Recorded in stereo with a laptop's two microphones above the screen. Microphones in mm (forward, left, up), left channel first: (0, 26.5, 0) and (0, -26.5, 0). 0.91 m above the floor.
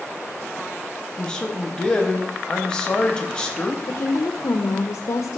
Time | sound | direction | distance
1.2 | a man speaking | 15° left (ahead or behind) | 0.9 m
3.9 | a woman speaking | 60° left (ahead or behind) | 0.8 m